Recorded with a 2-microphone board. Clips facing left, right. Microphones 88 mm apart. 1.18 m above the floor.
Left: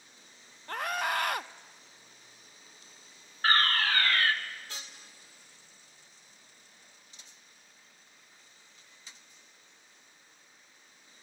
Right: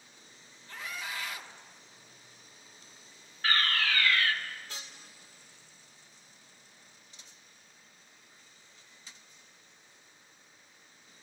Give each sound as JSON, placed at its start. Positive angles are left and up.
{"t": 0.7, "sound": "a scream", "side_deg": 60, "distance_m": 0.9}
{"t": 3.4, "sound": "a fire alarm", "side_deg": 45, "distance_m": 1.8}